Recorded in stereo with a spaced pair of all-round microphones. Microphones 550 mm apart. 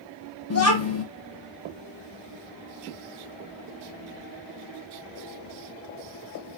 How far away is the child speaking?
About 0.6 m.